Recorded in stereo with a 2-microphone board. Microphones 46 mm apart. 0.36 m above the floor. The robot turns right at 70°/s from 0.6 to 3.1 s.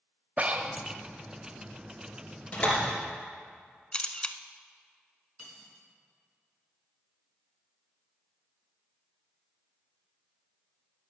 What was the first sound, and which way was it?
Breathing, 30° right (ahead or behind).